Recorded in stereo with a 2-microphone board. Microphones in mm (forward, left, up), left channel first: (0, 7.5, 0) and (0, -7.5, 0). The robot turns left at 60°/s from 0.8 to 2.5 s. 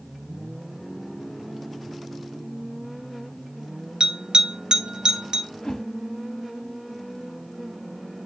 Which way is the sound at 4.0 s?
65° right (ahead or behind).